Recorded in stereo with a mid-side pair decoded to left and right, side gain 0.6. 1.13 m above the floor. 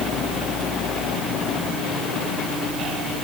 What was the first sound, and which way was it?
Only background noise.